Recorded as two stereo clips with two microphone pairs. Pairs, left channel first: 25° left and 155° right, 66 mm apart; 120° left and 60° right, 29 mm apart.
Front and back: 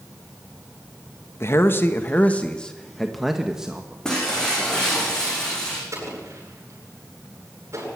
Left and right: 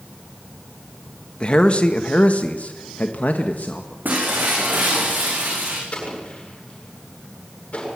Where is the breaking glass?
50° right, 8.5 m.